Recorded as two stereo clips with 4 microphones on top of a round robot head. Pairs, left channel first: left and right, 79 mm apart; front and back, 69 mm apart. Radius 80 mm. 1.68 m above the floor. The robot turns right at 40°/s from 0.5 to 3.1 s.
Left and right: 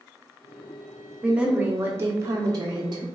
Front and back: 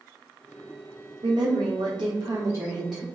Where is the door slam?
No door slam in this recording.